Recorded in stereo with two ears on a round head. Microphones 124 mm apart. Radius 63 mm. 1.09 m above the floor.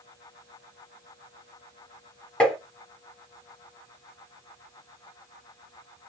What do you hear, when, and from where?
2.4 s tapping: 10° left (ahead or behind), 1.8 m